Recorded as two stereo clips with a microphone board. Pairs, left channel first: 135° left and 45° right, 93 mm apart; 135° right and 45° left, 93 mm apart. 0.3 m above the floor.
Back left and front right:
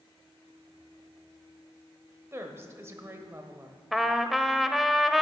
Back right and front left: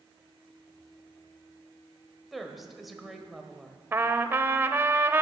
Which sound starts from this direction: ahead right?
A woman speaking, at 2.3 s.